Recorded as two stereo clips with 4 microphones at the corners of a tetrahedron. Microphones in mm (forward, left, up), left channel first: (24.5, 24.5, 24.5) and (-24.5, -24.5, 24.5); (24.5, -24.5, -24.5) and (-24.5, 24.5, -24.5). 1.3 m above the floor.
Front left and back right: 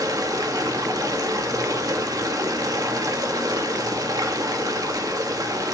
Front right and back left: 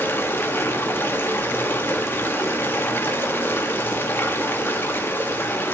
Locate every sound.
0.0 s running water: 105° right, 1.9 m